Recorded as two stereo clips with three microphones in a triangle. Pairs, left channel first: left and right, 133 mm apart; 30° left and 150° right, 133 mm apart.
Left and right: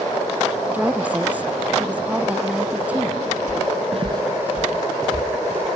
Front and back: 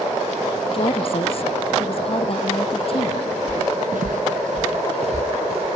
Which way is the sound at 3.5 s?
95° right.